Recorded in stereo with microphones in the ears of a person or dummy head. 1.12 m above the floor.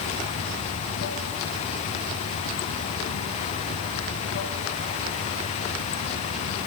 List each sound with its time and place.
0.0 s running water: 65° left (ahead or behind), 2 m